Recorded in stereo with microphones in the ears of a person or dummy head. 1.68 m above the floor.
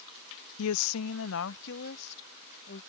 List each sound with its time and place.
0.6 s a woman speaking: 70° left (ahead or behind); by 2.8 s 60° left (ahead or behind)